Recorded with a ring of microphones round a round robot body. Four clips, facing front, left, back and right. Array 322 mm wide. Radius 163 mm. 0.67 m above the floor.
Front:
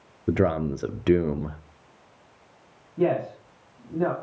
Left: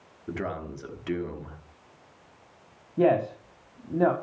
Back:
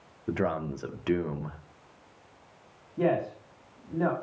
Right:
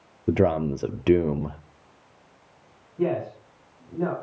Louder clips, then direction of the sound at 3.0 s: Left 4 dB, front 3 dB; 95° left.